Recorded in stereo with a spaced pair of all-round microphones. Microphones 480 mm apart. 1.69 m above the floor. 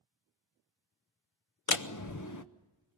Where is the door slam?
40° left (ahead or behind), 0.8 m.